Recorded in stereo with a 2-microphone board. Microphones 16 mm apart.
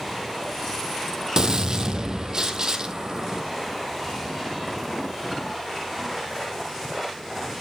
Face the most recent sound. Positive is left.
turn(degrees=-35)  # may be behind; listen again after turning